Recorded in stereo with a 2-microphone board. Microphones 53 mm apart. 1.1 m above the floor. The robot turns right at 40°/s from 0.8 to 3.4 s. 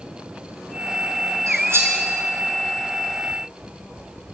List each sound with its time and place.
1.5 s cutlery clinking: 65° right (ahead or behind), 4 m; by 1.9 s 45° right (ahead or behind), 4 m